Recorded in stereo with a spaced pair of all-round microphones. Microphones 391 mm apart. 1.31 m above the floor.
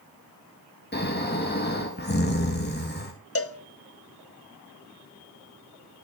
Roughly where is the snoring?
Left.